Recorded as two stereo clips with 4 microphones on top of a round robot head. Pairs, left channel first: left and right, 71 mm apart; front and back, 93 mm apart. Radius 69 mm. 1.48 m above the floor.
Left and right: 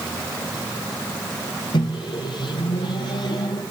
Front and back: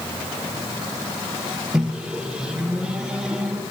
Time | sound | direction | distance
1.7 | a microwave | 95° left | 1.1 m